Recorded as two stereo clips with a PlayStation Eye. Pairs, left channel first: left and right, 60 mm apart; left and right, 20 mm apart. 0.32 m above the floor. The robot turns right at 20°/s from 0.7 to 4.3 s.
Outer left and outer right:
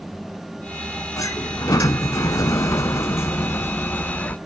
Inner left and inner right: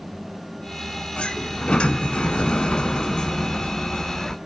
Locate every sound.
1.2 s a sliding door: 80° left, 0.7 m; by 4.3 s 145° left, 0.7 m